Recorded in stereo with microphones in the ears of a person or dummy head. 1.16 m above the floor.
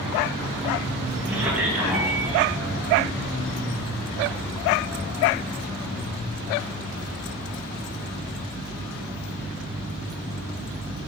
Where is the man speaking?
10° right (ahead or behind), 1.1 m.